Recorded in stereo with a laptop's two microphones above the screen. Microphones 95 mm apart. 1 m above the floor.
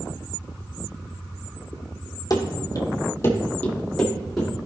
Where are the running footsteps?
40° left (ahead or behind), 1.6 m; by 4.5 s 5° right (ahead or behind), 2 m.